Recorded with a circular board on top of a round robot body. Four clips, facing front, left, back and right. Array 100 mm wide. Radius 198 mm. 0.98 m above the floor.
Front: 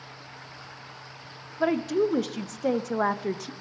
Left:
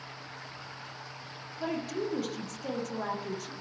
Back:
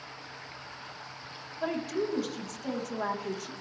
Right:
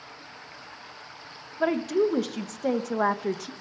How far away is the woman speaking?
About 0.8 m.